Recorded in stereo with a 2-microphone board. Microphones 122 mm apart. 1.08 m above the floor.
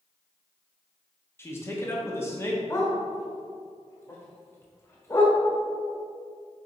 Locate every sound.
1.4 s a man speaking: 20° left (ahead or behind), 1.4 m
2.7 s a dog barking: 25° left (ahead or behind), 1.4 m